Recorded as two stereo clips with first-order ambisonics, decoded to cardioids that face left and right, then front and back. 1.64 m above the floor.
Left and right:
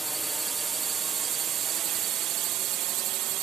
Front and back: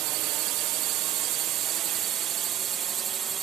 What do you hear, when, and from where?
0.0 s a drone: 170° right; by 3.4 s 120° right